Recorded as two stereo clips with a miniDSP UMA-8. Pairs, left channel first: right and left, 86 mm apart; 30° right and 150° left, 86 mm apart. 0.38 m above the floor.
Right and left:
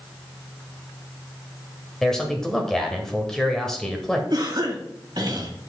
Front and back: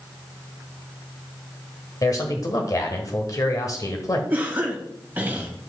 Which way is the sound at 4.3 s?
85° left.